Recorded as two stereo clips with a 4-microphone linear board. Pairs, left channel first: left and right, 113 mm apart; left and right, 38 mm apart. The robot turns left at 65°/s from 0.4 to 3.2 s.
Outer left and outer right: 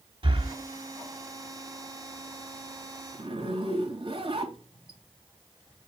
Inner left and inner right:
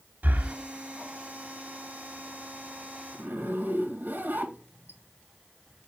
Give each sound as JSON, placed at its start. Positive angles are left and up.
{"t": 0.2, "sound": "breathing", "side_deg": -50, "distance_m": 1.2}
{"t": 3.1, "sound": "a zipper", "side_deg": -55, "distance_m": 1.9}